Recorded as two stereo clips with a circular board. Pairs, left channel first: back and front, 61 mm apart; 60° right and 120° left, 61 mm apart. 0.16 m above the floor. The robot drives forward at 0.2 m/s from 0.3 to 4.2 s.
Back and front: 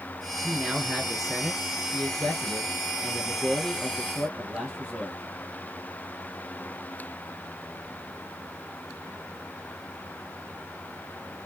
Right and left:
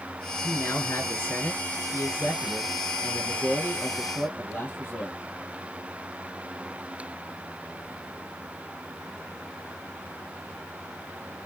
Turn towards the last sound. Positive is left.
turn(degrees=-105)